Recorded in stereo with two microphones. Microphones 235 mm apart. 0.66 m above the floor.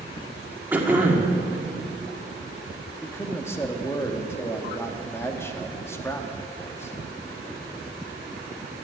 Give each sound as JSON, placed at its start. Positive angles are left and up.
{"t": 0.7, "sound": "throat clearing", "side_deg": -10, "distance_m": 1.9}
{"t": 3.0, "sound": "a man speaking", "side_deg": 10, "distance_m": 1.3}